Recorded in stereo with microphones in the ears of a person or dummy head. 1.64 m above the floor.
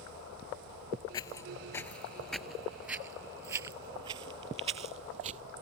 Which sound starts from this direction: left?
Footsteps, at 1.1 s.